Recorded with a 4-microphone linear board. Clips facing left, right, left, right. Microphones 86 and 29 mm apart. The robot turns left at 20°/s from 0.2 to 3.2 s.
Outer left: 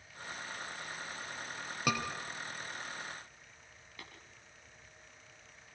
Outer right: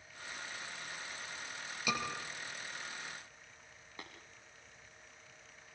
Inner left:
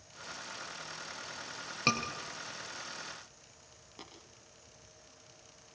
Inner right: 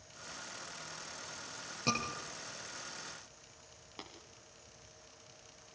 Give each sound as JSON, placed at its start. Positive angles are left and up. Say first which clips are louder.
{"t": 1.9, "sound": "a scream", "louder": "outer left 3 dB, inner left 4 dB", "side_deg": 55, "distance_m": 4.5}
{"t": 4.0, "sound": "tapping", "louder": "outer right 2 dB, inner right 2 dB", "side_deg": -25, "distance_m": 4.5}